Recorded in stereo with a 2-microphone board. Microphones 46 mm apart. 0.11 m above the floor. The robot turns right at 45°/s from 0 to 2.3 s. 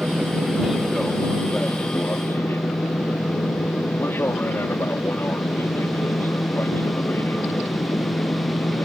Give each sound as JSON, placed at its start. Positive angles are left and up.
{"t": 0.0, "sound": "an aircraft", "azimuth_deg": -40}